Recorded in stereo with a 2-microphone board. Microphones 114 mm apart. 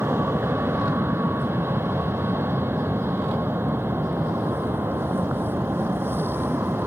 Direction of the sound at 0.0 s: 20° right (ahead or behind).